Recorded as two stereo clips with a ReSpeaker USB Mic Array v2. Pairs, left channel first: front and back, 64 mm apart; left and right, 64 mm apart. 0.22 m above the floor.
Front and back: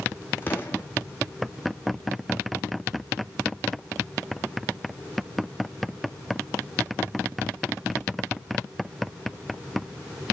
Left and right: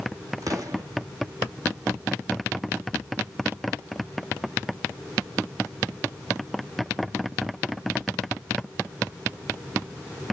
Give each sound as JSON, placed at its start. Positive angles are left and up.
{"t": 0.4, "sound": "an explosion", "azimuth_deg": -60, "distance_m": 2.5}